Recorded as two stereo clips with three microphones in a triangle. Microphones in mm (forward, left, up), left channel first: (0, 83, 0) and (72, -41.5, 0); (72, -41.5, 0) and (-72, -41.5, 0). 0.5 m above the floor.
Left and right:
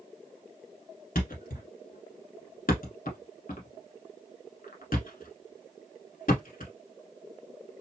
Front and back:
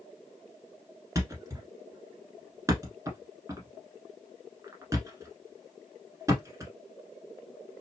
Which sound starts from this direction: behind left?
A thud, at 1.1 s.